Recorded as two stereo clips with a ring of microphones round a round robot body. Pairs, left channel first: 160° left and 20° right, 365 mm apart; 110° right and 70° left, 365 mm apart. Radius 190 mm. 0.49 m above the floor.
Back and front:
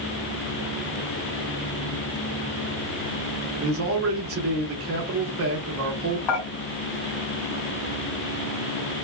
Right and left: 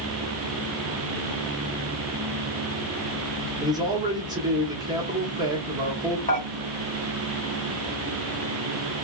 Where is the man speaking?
5° right, 1.0 m.